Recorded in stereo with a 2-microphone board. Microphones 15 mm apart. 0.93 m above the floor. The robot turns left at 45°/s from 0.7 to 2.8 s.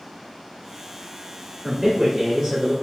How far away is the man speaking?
About 2 m.